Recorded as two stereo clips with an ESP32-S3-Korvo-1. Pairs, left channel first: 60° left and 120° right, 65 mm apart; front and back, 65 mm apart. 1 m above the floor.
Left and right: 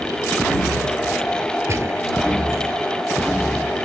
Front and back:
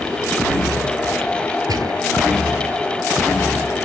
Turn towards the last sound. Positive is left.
turn(degrees=-165)